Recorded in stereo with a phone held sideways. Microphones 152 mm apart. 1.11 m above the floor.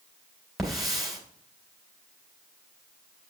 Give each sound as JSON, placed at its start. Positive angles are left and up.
{"t": 0.6, "sound": "a hiss", "side_deg": 0, "distance_m": 3.0}